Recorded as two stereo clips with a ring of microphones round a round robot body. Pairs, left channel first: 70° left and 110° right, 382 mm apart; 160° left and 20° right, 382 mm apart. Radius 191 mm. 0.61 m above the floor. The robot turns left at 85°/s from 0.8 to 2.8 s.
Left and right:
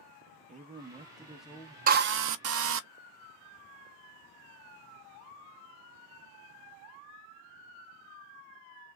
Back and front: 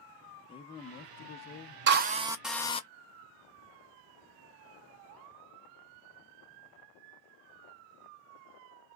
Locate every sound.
0.5 s a man speaking: 145° right, 0.5 m; by 1.8 s 130° left, 0.5 m
1.9 s a drill: 60° right, 0.6 m; by 2.8 s 140° right, 0.6 m